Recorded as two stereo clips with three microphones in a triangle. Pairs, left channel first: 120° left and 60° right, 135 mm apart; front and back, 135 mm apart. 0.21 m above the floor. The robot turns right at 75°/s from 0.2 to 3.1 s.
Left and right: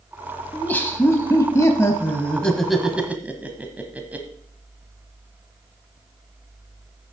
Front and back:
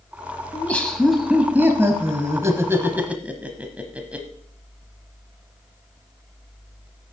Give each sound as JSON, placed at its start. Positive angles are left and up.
{"t": 0.5, "sound": "laughter", "azimuth_deg": 50, "distance_m": 1.0}